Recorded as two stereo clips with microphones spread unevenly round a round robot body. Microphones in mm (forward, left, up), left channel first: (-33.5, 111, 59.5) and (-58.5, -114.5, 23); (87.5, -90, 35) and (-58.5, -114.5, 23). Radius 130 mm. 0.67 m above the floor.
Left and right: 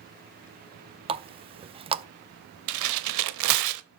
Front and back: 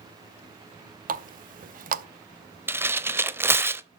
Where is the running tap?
155° right, 0.6 m.